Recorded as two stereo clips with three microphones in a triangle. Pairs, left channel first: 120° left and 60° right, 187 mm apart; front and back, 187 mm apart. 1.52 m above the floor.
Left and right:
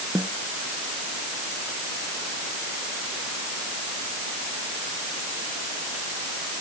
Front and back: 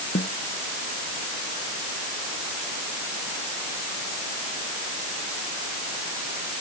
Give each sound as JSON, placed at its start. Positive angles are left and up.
{"t": 0.1, "sound": "a snare drum", "azimuth_deg": 20}